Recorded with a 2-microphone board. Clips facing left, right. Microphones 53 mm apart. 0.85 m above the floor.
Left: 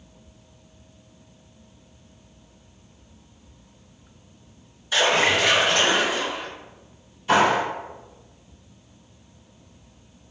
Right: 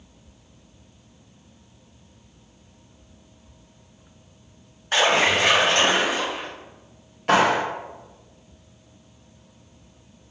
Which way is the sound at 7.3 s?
70° right (ahead or behind).